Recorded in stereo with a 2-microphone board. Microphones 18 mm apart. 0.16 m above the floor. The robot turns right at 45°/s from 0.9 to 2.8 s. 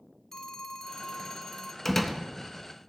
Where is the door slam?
20° left (ahead or behind), 1.0 m; by 2.2 s 10° left (ahead or behind), 1.0 m.